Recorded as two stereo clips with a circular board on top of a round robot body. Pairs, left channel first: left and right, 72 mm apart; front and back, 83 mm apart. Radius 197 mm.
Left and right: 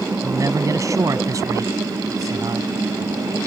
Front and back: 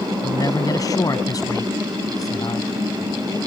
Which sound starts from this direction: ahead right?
A man speaking, at 0.2 s.